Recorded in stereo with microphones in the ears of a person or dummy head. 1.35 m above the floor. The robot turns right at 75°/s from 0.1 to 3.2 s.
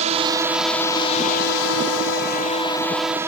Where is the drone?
40° right; by 3.3 s 170° right.